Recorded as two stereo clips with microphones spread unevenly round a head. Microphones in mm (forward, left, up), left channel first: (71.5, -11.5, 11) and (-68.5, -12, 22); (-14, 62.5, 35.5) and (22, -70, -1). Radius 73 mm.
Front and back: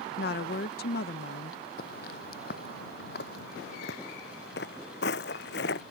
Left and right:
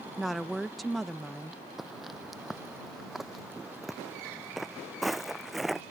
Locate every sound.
0.2 s a woman speaking: 15° left
1.8 s footsteps: 25° left; by 5.8 s 20° left